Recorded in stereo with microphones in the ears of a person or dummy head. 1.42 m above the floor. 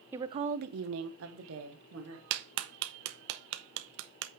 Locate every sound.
0.1 s a woman speaking: 20° right (ahead or behind), 0.6 m; by 2.2 s 70° right (ahead or behind), 1.8 m
2.3 s a clap: 65° right (ahead or behind), 0.6 m